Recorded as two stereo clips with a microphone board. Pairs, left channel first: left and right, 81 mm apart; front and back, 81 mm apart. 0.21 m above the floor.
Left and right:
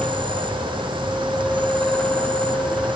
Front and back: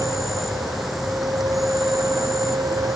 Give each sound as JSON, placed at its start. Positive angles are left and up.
{"t": 0.0, "sound": "an insect", "azimuth_deg": -90}